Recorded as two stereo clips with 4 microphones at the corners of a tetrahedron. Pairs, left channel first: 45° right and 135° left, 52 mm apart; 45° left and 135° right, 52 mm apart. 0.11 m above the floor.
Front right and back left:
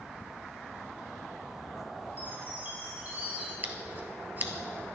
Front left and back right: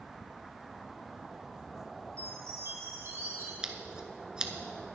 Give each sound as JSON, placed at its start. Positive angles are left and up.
{"t": 2.2, "sound": "a chime", "azimuth_deg": -165, "distance_m": 5.0}
{"t": 3.6, "sound": "scissors", "azimuth_deg": 160, "distance_m": 1.2}